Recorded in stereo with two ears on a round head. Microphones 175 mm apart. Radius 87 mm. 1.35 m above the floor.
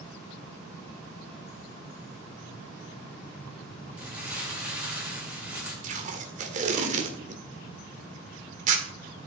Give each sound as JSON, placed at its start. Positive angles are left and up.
{"t": 4.0, "sound": "crumpling", "side_deg": -10, "distance_m": 8.0}
{"t": 5.8, "sound": "tape being pulled", "side_deg": -40, "distance_m": 2.0}